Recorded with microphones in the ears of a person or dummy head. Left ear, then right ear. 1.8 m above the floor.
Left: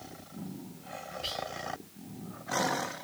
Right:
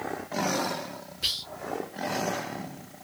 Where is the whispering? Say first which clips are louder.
Right 7 dB; 35° right (ahead or behind), 0.7 m.